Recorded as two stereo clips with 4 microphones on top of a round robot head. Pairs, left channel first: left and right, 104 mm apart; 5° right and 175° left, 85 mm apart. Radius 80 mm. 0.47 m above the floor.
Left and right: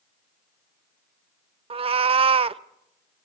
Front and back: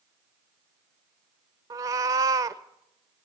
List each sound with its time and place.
1.7 s a cat meowing: 125° right, 0.6 m